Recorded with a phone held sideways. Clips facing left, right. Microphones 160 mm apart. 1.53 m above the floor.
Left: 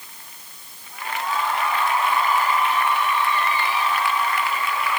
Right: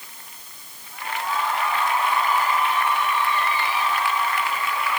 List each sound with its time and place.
Only background noise.